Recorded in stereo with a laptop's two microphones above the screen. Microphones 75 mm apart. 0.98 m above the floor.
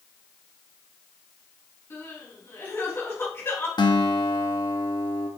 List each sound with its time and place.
1.9 s crying: 35° left (ahead or behind), 5 m
3.8 s a guitar: 80° left, 1.0 m